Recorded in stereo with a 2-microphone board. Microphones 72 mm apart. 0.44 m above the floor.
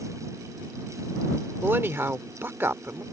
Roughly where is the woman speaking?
Right.